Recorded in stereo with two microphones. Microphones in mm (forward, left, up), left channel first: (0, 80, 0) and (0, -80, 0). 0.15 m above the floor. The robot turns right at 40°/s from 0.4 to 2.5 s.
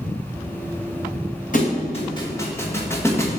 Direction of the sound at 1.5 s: 55° left (ahead or behind).